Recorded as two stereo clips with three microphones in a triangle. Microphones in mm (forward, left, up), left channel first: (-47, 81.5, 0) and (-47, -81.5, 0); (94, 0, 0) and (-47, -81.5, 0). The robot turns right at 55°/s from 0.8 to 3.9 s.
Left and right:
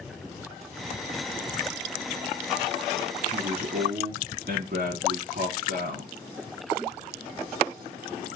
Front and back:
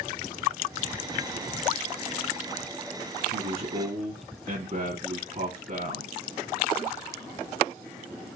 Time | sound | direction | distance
3.2 | a man speaking | 145° right | 2 m